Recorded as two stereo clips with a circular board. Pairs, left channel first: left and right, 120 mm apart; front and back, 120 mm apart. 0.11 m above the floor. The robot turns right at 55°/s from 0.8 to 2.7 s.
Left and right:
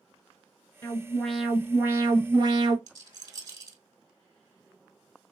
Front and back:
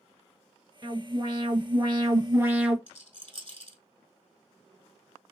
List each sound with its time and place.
0.8 s an alarm: 150° left, 1.3 m; by 2.8 s 105° right, 1.3 m
2.9 s a rattle: 145° right, 1.5 m